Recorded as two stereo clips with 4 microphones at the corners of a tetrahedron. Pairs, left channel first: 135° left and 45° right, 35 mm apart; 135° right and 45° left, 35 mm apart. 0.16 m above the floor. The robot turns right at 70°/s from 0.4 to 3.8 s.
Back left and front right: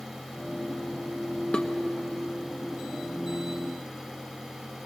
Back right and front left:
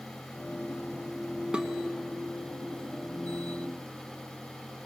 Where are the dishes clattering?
95° left, 1.2 m; by 1.7 s 105° left, 1.2 m.